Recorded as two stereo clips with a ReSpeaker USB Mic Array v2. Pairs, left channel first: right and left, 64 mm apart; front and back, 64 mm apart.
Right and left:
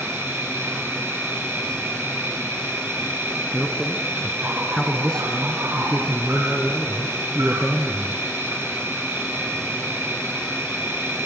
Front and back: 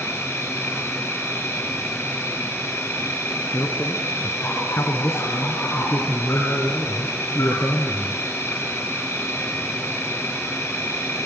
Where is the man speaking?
15° right, 1.9 m.